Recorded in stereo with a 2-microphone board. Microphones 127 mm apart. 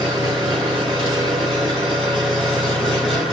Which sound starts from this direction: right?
An engine running, at 0.0 s.